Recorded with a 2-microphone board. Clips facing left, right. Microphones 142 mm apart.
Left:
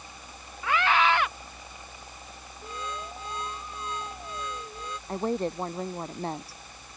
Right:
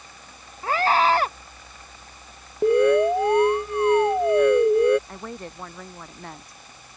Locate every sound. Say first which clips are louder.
0.6 s a scream: right 4 dB; 40° right (ahead or behind)
2.6 s an alarm: right 22 dB; 75° right (ahead or behind)
5.1 s a woman speaking: left 8 dB; 35° left (ahead or behind)